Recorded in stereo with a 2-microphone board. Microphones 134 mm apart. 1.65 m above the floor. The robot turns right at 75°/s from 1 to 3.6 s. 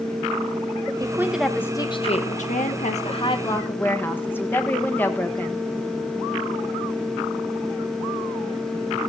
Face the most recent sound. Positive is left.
turn(degrees=165)